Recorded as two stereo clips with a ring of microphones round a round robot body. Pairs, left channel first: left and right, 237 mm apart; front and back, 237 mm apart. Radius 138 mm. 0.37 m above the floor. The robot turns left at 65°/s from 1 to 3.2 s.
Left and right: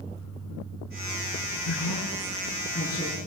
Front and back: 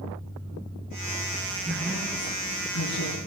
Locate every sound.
1.6 s a woman speaking: 105° left, 5.5 m; by 3.2 s 5° left, 5.5 m